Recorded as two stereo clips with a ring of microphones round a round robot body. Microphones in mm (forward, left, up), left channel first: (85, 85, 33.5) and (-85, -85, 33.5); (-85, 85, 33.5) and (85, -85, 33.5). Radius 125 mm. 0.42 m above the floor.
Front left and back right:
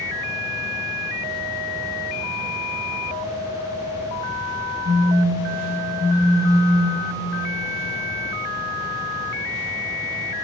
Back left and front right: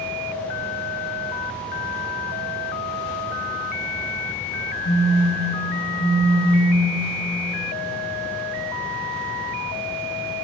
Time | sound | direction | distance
4.8 | a phone buzzing | straight behind | 2 m